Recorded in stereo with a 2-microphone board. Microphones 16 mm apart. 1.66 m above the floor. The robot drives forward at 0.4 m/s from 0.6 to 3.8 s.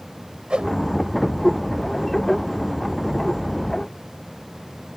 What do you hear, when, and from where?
0.5 s a whoosh: 90° right